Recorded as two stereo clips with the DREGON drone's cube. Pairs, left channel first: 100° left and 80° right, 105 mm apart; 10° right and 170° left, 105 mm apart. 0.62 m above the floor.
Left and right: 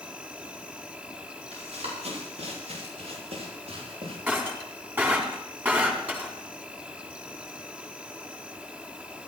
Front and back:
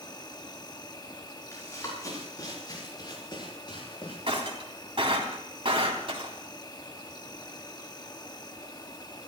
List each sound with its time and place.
0.0 s an insect: 10° right, 1.3 m
1.5 s running footsteps: 75° right, 10 m; by 4.2 s 50° right, 10 m
4.3 s breaking glass: 150° right, 3.5 m